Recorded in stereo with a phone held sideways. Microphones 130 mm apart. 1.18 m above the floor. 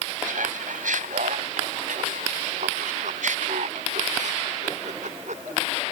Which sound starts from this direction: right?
Laughter, at 0.3 s.